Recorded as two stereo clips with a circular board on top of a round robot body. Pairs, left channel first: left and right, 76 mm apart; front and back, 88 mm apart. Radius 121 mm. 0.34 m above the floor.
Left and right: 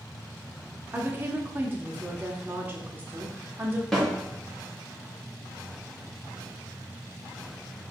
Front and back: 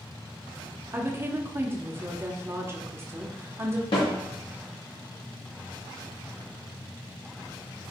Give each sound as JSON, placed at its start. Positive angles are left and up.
{"t": 0.9, "sound": "a woman speaking", "azimuth_deg": -135, "distance_m": 1.2}
{"t": 3.9, "sound": "a snare drum", "azimuth_deg": 5, "distance_m": 3.5}